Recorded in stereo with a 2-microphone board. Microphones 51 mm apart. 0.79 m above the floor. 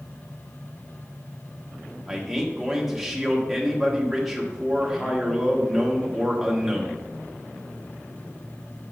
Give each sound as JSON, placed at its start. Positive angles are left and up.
{"t": 2.1, "sound": "a man speaking", "side_deg": -5, "distance_m": 1.3}